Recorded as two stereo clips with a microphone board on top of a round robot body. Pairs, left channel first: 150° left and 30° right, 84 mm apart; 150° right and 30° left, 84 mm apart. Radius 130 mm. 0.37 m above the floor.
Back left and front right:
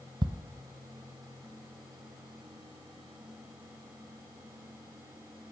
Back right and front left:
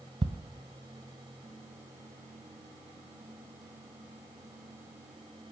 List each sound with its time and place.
0.2 s ticking: 5° left, 0.8 m